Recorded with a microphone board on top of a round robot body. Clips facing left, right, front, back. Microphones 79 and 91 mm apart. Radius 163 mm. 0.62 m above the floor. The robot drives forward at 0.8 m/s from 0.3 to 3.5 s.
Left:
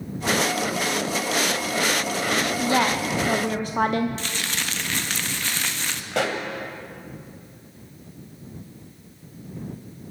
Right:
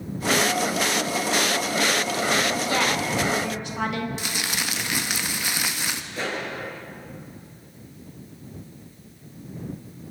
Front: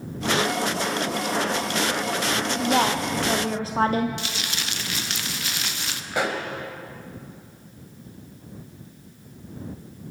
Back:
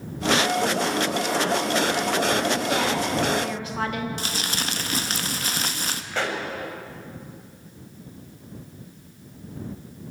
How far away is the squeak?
I don't hear a squeak.